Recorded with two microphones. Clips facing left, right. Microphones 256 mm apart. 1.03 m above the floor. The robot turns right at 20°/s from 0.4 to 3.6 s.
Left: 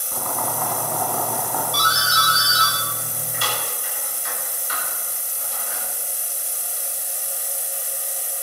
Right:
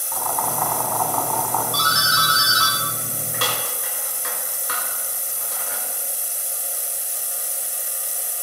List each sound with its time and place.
0.1 s boiling: 40° left (ahead or behind), 3 m; by 1.6 s 15° left (ahead or behind), 3 m
1.7 s a doorbell: 50° right (ahead or behind), 5.5 m; by 5.8 s 85° right, 5.5 m